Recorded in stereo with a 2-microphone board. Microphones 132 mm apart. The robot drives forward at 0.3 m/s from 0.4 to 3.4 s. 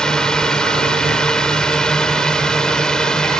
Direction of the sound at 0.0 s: 5° left (ahead or behind).